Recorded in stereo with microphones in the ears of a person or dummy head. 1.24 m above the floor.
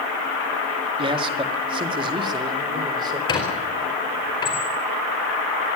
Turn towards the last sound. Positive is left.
turn(degrees=20)  # may be behind; listen again after turning